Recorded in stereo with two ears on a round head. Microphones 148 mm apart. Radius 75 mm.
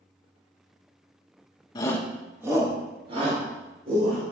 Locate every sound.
1.8 s a shout: 25° left (ahead or behind), 1.1 m; by 4.2 s 40° right (ahead or behind), 4 m